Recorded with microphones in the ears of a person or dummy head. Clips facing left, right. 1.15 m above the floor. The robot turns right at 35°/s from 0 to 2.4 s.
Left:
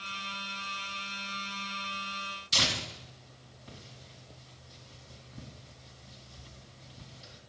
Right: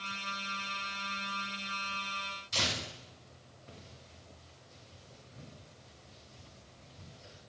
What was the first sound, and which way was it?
Tearing paper, 60° left (ahead or behind).